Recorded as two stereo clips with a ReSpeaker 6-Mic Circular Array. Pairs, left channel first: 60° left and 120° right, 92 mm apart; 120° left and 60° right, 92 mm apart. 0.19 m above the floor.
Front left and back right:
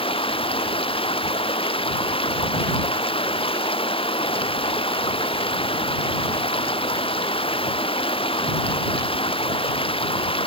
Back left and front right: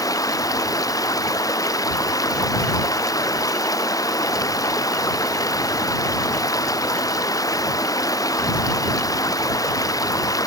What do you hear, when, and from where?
0.0 s running water: 70° left